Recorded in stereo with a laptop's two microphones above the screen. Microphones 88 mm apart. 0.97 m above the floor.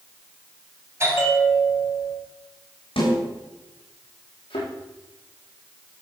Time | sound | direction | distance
1.0 | a bell | 30° right (ahead or behind) | 4 m
3.0 | a snare drum | 75° left (ahead or behind) | 7 m
4.5 | a thud | 70° left (ahead or behind) | 6.5 m